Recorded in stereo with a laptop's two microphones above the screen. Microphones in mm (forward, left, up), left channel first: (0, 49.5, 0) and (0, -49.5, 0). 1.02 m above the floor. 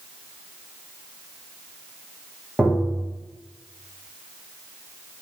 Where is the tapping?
10° right (ahead or behind), 2 m.